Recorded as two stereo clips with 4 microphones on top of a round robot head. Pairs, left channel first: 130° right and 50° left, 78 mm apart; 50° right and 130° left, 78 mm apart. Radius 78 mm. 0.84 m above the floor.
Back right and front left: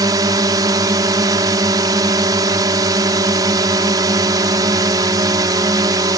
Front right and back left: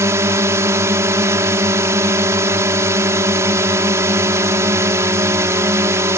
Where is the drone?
80° left.